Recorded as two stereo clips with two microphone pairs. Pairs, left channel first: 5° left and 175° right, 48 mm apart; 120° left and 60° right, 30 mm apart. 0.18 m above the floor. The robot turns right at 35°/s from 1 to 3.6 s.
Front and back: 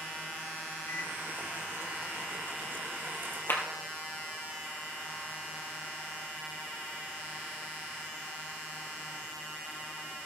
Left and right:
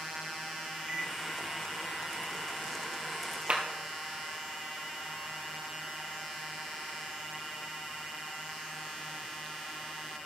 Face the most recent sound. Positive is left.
turn(degrees=-15)